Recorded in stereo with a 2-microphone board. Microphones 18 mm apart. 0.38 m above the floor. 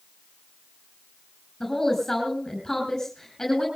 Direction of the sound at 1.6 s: 25° left (ahead or behind).